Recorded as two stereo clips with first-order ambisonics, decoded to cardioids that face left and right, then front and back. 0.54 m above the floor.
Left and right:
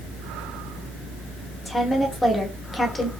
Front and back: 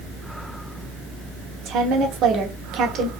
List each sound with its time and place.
1.6 s a woman speaking: 170° left, 1.2 m